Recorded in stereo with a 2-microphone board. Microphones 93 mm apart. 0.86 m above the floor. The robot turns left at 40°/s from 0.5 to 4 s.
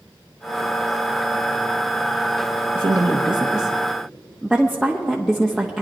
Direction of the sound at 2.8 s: 130° right.